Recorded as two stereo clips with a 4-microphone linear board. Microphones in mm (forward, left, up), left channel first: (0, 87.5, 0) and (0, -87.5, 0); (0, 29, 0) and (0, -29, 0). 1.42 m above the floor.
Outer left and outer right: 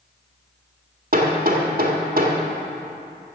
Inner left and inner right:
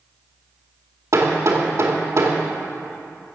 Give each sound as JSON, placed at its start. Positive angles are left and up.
{"t": 1.1, "sound": "hammering", "side_deg": -60, "distance_m": 1.9}